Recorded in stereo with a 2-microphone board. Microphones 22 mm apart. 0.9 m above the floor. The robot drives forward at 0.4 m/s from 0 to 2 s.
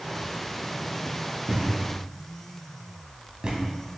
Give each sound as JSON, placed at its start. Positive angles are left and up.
{"t": 1.5, "sound": "a thud", "side_deg": -35, "distance_m": 2.5}